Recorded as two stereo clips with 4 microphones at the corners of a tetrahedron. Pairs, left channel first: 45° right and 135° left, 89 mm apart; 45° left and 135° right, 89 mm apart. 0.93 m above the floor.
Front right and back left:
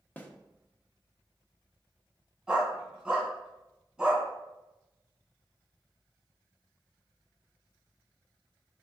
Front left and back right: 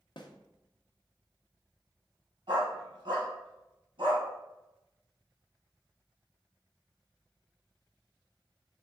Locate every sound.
0.2 s a snare drum: 25° left, 0.6 m
2.5 s a dog barking: 145° right, 1.8 m